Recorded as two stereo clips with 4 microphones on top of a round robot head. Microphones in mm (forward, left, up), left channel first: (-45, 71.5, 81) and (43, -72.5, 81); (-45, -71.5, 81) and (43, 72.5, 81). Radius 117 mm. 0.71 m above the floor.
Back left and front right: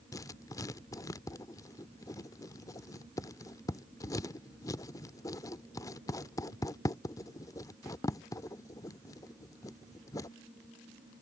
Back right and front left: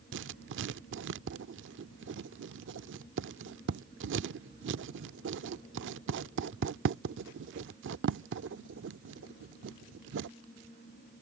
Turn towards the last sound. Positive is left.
turn(degrees=50)